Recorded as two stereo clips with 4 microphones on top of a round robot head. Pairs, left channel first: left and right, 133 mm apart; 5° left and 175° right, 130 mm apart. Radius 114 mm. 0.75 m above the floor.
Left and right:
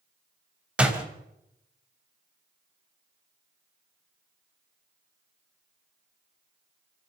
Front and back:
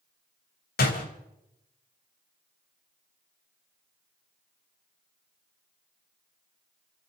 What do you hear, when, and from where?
0.8 s a door slam: 10° right, 3.5 m